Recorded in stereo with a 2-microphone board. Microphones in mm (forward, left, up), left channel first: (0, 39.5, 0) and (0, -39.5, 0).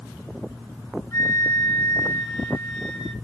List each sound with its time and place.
1.1 s a flute: 45° left (ahead or behind), 2.0 m